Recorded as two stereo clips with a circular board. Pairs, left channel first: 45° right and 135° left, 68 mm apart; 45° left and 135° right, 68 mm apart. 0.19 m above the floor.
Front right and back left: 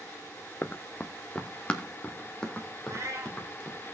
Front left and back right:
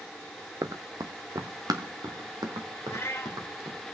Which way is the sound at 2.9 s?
95° left.